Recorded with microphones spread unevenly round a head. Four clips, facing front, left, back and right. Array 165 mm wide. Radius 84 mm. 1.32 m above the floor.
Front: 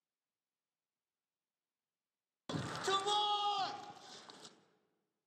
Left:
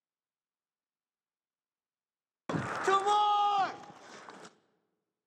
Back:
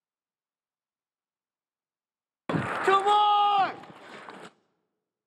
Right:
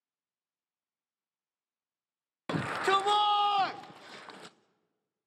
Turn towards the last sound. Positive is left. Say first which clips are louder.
# right 1 dB, back 14 dB
turn(degrees=-170)